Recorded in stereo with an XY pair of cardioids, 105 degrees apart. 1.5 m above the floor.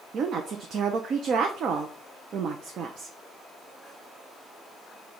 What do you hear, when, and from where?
0.1 s a woman speaking: 60° right, 0.6 m